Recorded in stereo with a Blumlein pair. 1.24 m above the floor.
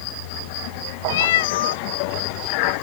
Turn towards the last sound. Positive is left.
turn(degrees=55)